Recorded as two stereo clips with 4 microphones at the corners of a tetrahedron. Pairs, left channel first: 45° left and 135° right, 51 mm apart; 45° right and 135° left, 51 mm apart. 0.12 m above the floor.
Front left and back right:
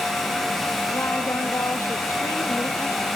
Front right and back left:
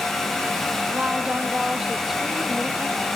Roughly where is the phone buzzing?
No phone buzzing in this recording.